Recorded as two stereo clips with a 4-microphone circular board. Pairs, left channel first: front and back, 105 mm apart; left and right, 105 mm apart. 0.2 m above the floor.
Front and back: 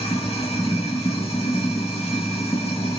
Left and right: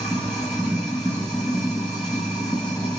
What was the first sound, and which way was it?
Running water, 5° left.